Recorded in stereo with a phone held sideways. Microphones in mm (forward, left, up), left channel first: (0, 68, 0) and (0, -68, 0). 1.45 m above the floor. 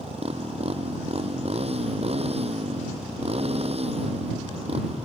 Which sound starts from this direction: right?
A motorcycle, at 0.0 s.